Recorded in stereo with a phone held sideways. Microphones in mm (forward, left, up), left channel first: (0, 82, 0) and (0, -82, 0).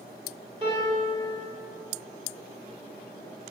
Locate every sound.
0.6 s a piano: 30° right (ahead or behind), 2.5 m